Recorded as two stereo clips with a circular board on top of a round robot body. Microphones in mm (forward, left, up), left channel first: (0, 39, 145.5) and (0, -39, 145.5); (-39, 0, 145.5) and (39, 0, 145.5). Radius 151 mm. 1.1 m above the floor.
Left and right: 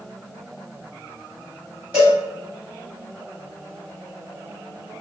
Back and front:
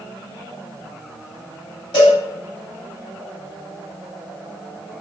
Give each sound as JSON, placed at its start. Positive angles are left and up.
{"t": 1.9, "sound": "a cowbell", "azimuth_deg": -155, "distance_m": 0.9}